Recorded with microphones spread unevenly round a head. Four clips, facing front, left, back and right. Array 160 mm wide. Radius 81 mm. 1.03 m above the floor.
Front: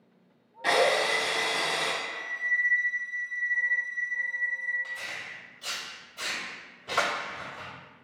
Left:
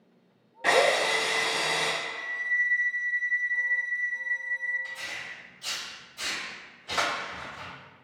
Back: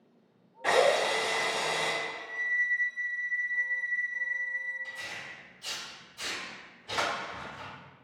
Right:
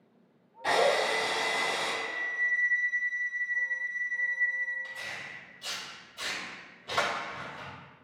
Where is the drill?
60° left, 1.1 m.